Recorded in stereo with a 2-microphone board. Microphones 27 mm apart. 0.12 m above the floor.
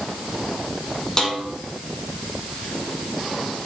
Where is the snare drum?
25° left (ahead or behind), 5 m.